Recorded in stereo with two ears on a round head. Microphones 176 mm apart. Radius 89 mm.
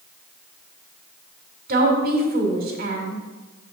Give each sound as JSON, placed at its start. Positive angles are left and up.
{"t": 1.7, "sound": "a woman speaking", "side_deg": -45, "distance_m": 1.7}